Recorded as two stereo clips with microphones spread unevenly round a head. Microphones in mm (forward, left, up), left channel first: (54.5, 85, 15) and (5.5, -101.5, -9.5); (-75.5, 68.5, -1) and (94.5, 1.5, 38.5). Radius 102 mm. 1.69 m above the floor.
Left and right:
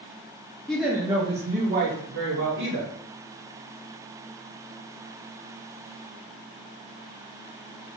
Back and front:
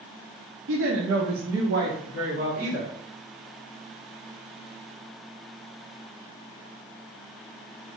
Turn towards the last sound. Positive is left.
turn(degrees=-80)